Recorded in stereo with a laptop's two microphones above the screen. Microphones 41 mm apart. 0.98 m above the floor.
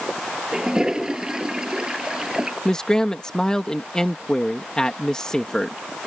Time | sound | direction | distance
0.5 | a toilet flushing | 15° right (ahead or behind) | ?
2.6 | a man speaking | 15° left (ahead or behind) | ?